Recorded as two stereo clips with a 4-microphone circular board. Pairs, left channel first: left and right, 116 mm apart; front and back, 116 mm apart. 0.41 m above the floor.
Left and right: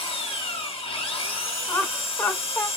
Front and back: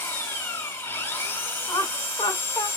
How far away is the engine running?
About 1.1 m.